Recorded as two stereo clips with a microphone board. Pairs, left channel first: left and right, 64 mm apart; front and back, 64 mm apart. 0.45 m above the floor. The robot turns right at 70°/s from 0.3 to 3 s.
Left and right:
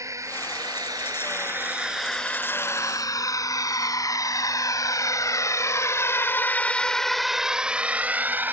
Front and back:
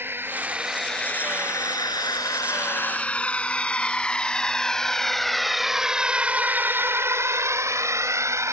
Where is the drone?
125° right; by 8.5 s 145° right.